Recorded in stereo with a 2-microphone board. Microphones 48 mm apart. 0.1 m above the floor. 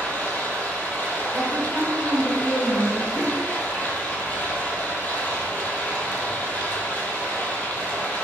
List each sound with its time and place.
0.0 s running water: 30° left (ahead or behind), 0.8 m
1.3 s a woman speaking: centre (ahead or behind), 1.2 m
3.1 s a whoosh: 30° left (ahead or behind), 1.2 m